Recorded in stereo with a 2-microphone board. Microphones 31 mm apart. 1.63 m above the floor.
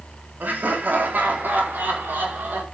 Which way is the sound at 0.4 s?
65° right (ahead or behind).